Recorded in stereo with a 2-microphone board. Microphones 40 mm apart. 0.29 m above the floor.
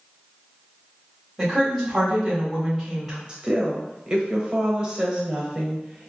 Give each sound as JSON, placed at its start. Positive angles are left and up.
{"t": 1.4, "sound": "a woman speaking", "side_deg": 0, "distance_m": 1.6}
{"t": 3.3, "sound": "a woman speaking", "side_deg": -25, "distance_m": 0.9}